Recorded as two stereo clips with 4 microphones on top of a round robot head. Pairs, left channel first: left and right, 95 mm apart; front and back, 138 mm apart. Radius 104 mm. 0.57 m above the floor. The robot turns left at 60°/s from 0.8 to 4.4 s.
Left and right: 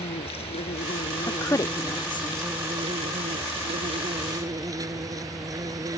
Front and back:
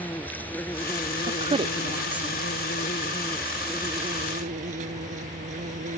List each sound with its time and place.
0.0 s an insect: 75° left; by 6.0 s 140° right
1.3 s a woman speaking: 155° left; by 2.5 s 80° left